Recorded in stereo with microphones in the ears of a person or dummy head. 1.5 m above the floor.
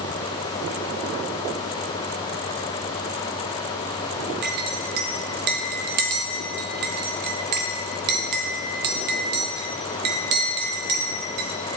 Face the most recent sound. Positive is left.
turn(degrees=-50)  # may be behind; listen again after turning